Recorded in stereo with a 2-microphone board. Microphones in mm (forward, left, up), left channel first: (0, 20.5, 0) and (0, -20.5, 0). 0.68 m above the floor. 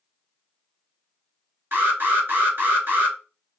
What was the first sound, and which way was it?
An alarm, 65° right (ahead or behind).